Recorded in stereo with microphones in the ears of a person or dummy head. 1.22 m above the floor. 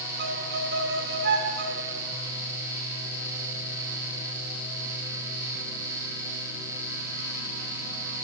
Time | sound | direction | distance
0.2 | a violin | 60° right (ahead or behind) | 1.3 m